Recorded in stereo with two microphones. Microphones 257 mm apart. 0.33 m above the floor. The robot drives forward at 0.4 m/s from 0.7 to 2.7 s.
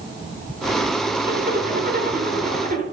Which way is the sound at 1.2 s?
40° right (ahead or behind).